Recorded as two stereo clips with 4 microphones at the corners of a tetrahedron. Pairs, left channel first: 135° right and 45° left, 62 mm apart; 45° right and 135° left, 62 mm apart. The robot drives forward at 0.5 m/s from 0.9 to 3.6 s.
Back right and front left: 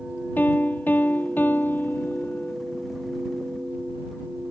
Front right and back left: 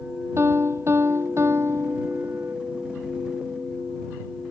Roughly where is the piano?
Behind.